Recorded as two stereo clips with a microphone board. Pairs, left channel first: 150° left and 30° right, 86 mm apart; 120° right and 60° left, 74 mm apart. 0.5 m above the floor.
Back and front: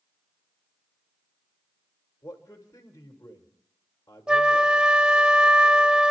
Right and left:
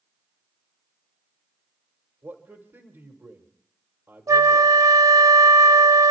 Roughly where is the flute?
Ahead left.